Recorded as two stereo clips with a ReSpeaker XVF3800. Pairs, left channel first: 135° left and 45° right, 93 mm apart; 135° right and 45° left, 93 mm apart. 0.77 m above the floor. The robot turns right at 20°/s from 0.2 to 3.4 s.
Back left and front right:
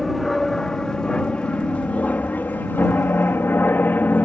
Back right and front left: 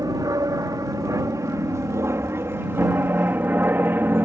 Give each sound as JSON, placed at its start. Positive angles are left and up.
{"t": 0.0, "sound": "an aircraft", "azimuth_deg": 50}